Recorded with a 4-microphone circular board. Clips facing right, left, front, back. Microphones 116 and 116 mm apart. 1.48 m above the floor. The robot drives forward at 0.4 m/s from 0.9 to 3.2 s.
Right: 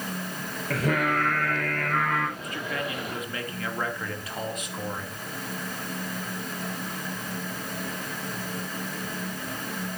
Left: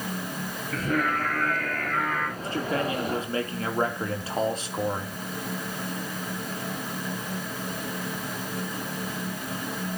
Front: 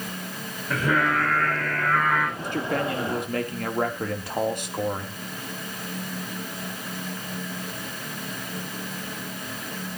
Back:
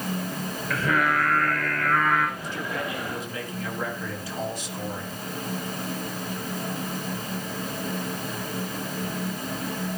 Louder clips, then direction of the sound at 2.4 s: Left 5 dB, front 5 dB; 30° left.